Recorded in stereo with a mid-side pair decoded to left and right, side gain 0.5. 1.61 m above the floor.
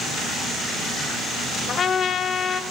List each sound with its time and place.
1.7 s a trumpet: 45° left, 0.5 m